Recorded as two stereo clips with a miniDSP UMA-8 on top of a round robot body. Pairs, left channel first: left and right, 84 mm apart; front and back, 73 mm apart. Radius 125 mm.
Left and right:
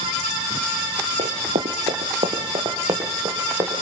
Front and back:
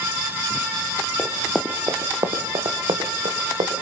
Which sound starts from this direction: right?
Running footsteps, at 1.2 s.